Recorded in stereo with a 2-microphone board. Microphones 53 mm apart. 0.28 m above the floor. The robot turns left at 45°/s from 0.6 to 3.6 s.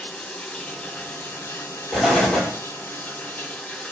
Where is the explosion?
5° right (ahead or behind), 1.7 m; by 2.6 s 20° left (ahead or behind), 1.7 m.